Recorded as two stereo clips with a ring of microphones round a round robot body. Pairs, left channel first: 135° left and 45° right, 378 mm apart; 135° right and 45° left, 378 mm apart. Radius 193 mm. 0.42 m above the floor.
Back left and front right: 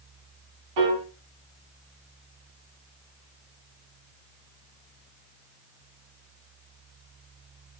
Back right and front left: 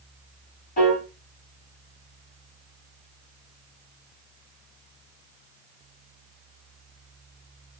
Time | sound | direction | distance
0.8 | a piano | 65° right | 1.2 m